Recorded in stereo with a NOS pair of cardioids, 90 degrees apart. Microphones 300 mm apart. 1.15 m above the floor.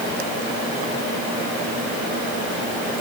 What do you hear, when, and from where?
Only background noise.